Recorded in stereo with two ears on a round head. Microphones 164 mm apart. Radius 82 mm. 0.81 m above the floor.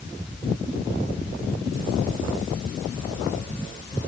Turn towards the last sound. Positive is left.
No sound to turn to.